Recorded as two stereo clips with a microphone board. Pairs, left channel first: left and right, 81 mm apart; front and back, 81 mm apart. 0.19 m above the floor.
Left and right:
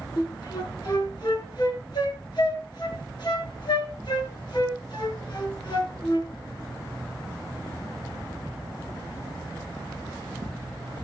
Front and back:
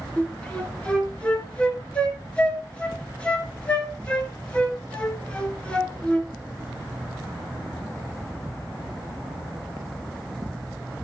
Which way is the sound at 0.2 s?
75° left.